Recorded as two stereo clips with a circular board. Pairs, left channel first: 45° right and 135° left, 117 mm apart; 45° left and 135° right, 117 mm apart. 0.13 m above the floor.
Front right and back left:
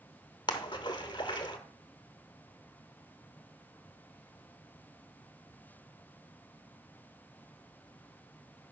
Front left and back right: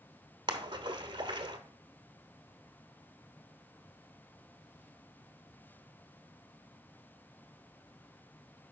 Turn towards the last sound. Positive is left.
turn(degrees=-90)